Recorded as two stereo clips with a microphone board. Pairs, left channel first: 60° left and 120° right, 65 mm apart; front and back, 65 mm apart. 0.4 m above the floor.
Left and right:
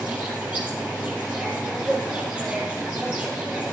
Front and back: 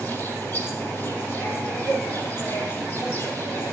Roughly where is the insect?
Ahead right.